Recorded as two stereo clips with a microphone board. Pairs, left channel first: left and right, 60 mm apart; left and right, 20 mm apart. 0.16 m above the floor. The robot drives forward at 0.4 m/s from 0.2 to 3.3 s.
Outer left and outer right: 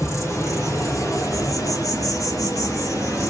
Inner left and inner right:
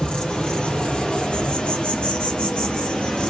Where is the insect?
50° left (ahead or behind), 1.3 m; by 3.3 s 65° left (ahead or behind), 1.2 m.